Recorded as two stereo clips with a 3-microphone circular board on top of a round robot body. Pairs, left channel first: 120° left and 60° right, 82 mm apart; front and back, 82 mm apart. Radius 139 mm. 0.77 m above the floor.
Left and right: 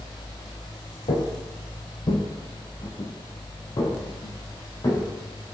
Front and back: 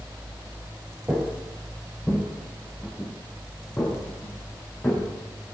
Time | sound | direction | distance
1.1 | footsteps | 105° left | 1.4 m